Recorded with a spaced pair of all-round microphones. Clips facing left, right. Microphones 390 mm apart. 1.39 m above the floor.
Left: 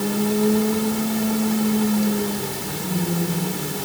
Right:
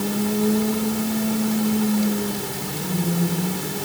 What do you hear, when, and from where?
Only background noise.